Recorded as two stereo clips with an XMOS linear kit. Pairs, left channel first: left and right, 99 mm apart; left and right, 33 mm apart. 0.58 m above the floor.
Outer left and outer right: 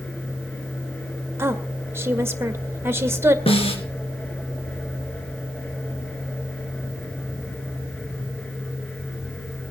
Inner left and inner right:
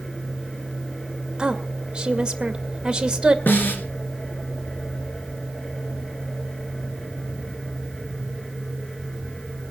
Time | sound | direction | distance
1.4 | a woman speaking | 25° right (ahead or behind) | 1.9 m
3.5 | a snare drum | 75° left (ahead or behind) | 2.5 m